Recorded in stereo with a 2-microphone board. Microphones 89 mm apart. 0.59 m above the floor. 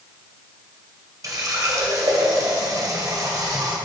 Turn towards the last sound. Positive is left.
turn(degrees=-40)  # may be behind; listen again after turning